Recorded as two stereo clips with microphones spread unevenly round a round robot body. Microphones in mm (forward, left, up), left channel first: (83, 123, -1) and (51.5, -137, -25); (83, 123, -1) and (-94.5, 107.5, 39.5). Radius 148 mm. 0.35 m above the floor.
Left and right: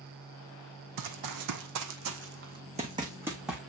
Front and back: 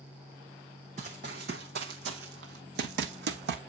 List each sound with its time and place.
1.0 s running footsteps: 110° right, 1.1 m; by 3.6 s 170° left, 1.2 m